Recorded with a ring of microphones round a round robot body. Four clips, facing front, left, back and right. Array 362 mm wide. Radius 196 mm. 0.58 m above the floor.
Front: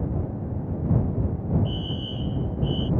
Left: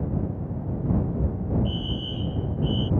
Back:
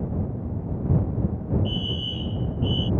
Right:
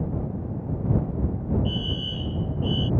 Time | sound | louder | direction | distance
1.6 | a fire alarm | right 1 dB, back 1 dB | 150° right | ?